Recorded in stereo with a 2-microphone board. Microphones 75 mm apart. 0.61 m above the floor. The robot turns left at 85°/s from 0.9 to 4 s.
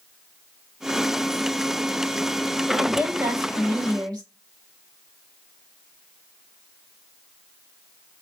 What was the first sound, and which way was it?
A woman speaking, 10° left.